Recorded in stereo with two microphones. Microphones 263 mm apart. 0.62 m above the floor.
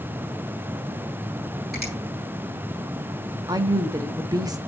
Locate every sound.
1.7 s a finger snap: 40° right (ahead or behind), 5.5 m
3.5 s a woman speaking: 15° right (ahead or behind), 0.7 m